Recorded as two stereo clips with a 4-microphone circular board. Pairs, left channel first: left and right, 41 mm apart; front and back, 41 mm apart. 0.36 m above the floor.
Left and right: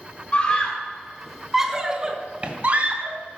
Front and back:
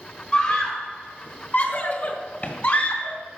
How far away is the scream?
About 1.2 m.